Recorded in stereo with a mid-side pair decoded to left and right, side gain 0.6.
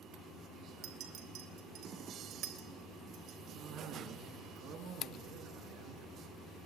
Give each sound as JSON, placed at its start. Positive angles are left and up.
{"t": 0.8, "sound": "a clink", "azimuth_deg": -65, "distance_m": 3.5}
{"t": 3.5, "sound": "a cough", "azimuth_deg": -60, "distance_m": 3.5}